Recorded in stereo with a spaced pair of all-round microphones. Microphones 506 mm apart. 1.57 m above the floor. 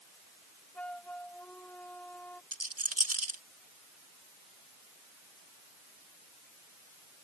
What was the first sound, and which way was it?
A flute, 5° left (ahead or behind).